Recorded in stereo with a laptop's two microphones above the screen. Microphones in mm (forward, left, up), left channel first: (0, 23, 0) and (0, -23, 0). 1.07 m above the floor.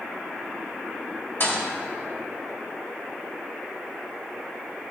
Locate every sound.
1.4 s a thud: 50° left (ahead or behind), 2.5 m